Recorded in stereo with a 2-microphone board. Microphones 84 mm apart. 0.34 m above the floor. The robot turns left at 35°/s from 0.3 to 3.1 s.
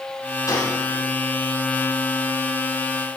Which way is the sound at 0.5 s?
40° left (ahead or behind).